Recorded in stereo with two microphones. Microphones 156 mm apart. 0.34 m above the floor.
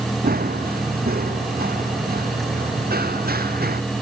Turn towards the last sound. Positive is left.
turn(degrees=-80)